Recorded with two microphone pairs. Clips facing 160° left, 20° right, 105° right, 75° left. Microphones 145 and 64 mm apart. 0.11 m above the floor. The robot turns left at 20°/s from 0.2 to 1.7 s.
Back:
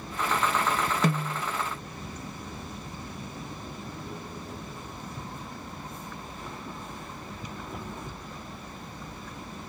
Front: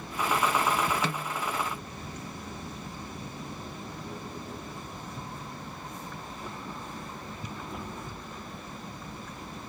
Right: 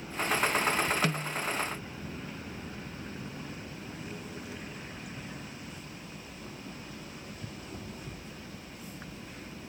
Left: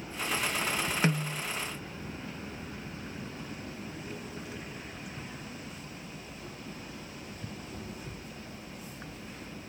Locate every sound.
1.0 s a snare drum: 140° left, 0.5 m; by 1.4 s 135° left, 0.5 m